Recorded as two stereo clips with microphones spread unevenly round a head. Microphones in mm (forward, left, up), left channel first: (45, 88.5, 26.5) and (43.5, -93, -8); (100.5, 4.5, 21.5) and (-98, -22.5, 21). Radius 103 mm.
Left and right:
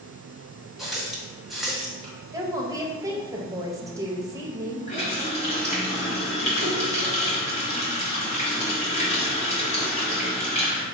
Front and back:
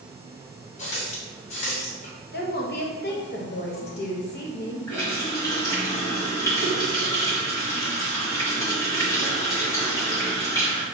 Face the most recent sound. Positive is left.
turn(degrees=80)